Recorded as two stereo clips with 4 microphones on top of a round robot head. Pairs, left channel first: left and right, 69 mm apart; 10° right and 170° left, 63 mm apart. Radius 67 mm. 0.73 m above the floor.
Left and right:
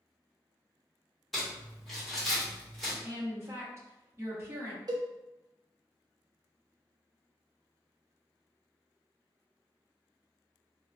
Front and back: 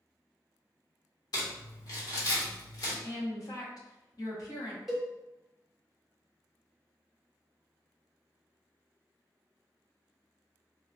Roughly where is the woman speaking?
Ahead right.